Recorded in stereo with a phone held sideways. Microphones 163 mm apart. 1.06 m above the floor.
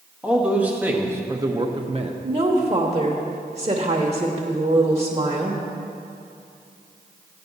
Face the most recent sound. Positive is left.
turn(degrees=-40)  # may be behind; listen again after turning